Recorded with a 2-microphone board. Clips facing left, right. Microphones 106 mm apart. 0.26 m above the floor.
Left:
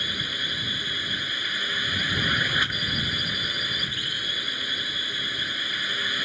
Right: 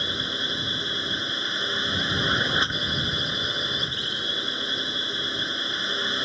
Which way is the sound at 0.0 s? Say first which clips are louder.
Right 3 dB; 25° right (ahead or behind).